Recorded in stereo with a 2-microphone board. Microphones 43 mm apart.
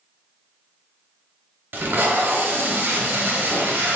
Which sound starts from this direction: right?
Tape being pulled, at 1.7 s.